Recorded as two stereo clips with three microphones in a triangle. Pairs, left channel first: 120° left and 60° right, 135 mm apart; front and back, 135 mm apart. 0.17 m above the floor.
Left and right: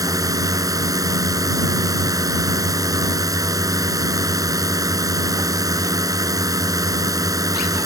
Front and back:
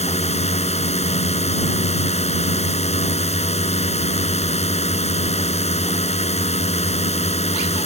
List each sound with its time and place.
0.0 s a drone: 5° right